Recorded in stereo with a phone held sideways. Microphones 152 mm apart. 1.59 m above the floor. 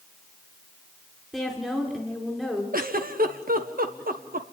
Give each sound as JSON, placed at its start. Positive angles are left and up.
{"t": 1.3, "sound": "a woman speaking", "side_deg": 0, "distance_m": 4.5}
{"t": 2.7, "sound": "a giggle", "side_deg": -70, "distance_m": 1.4}